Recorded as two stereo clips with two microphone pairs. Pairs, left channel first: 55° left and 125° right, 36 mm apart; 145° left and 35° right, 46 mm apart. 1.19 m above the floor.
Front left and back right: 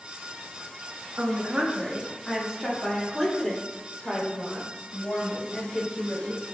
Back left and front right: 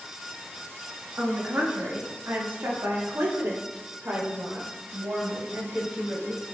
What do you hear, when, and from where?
1.2 s a woman speaking: 80° right, 1.4 m; by 6.4 s 10° right, 5.5 m